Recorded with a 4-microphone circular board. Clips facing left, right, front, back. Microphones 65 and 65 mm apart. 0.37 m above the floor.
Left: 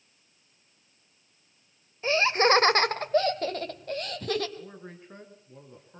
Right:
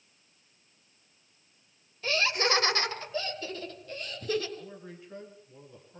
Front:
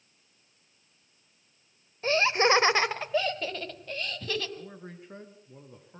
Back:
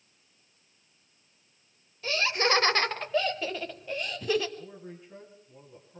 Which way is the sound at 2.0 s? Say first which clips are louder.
Left 6 dB, front 4 dB; 35° left.